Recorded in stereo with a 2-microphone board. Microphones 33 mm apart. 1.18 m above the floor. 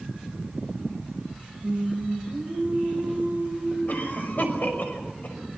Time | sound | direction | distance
1.6 | singing | 40° right (ahead or behind) | 6 m
3.9 | a cough | 55° left (ahead or behind) | 6 m